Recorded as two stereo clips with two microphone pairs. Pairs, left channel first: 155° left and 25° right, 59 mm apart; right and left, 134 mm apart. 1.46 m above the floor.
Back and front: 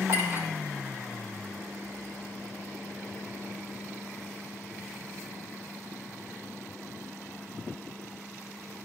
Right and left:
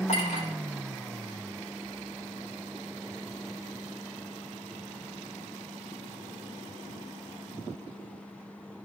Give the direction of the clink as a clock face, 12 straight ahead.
2 o'clock.